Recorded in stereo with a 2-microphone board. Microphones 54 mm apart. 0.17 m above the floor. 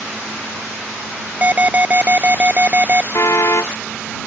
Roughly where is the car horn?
Left.